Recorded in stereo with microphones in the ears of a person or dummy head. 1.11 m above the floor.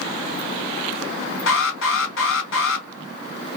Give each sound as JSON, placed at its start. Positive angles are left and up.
{"t": 1.5, "sound": "an alarm", "side_deg": 65, "distance_m": 2.5}